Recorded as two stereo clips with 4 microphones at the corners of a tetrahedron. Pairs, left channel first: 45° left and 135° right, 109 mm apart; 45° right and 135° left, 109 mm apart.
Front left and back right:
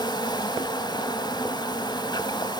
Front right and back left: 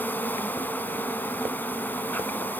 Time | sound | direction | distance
0.0 | an insect | 20° left | 0.8 m